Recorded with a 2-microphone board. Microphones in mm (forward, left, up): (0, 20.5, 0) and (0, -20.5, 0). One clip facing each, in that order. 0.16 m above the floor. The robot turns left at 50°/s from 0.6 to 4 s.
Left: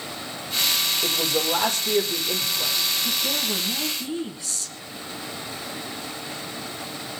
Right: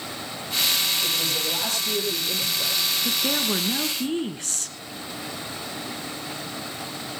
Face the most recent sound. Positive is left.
turn(degrees=-90)